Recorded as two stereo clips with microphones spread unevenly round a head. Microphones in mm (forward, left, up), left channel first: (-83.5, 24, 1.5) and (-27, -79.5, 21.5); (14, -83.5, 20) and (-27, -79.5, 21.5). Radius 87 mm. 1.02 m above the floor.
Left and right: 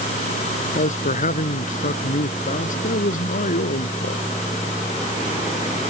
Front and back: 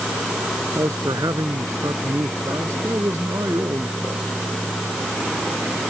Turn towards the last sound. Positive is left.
turn(degrees=125)